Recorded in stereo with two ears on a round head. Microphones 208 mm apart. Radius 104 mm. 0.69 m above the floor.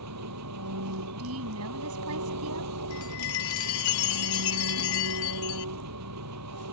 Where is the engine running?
85° right.